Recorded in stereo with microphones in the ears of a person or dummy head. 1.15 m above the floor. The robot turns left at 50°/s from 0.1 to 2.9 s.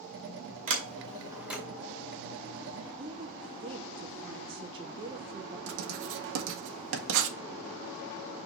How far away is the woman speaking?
About 0.7 m.